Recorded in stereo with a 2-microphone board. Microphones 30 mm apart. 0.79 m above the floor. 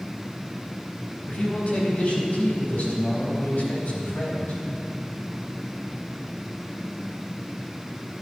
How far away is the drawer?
I don't hear a drawer.